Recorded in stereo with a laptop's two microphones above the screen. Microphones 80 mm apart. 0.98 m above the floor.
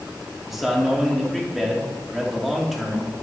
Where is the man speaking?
5° right (ahead or behind), 1.9 m.